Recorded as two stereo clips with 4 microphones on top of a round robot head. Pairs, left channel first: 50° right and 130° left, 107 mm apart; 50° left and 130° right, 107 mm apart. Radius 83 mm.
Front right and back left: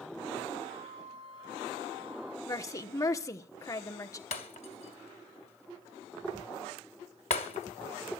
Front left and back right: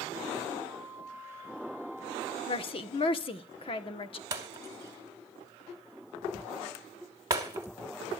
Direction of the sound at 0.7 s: 160° left.